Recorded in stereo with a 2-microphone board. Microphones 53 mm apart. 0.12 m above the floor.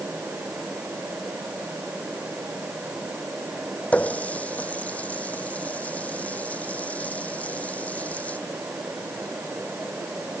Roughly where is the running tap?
Left.